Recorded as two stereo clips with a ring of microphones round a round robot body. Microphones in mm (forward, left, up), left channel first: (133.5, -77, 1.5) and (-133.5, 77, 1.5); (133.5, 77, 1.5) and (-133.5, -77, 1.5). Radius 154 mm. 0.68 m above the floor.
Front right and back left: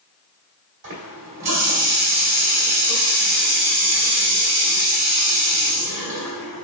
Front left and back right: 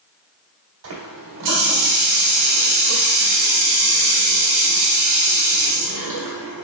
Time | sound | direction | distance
0.8 | a running tap | 170° right | 1.8 m